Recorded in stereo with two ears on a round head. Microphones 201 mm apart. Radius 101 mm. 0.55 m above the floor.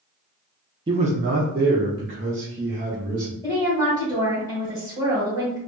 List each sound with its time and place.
0.9 s a man speaking: 20° right (ahead or behind), 0.6 m; by 3.3 s 55° right (ahead or behind), 2.0 m
3.4 s a woman speaking: 15° right (ahead or behind), 2 m